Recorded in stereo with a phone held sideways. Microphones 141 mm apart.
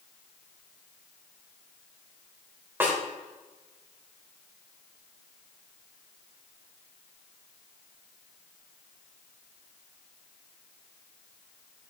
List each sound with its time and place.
2.8 s a snare drum: 15° right (ahead or behind), 3.5 m